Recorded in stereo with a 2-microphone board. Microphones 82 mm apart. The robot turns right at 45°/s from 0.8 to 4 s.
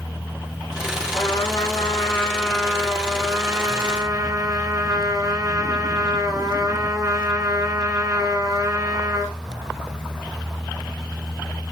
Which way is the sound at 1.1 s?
110° left.